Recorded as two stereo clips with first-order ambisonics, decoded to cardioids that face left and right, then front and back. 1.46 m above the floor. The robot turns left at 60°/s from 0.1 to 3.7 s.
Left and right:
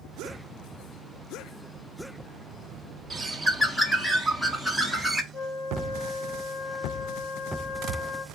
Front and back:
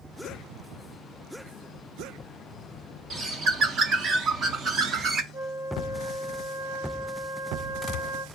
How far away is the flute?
About 1.8 m.